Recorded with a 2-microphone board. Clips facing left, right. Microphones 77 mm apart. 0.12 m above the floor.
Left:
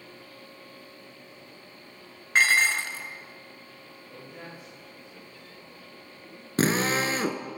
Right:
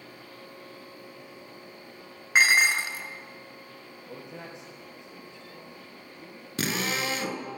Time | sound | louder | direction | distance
2.4 | dishes clattering | right 1 dB | 15° right (ahead or behind) | 1.1 m
4.1 | a man speaking | right 2 dB | 75° right (ahead or behind) | 5.5 m
6.6 | a drill | left 5 dB | 35° left (ahead or behind) | 0.9 m